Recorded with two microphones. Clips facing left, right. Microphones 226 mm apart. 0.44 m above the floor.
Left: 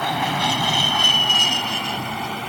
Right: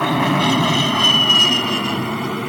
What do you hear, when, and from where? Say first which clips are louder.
0.0 s an aircraft: right 8 dB; 65° right (ahead or behind); by 2.5 s 60° right (ahead or behind)